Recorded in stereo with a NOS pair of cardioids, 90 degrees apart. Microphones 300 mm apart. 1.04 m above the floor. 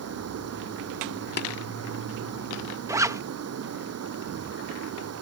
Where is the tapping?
35° left.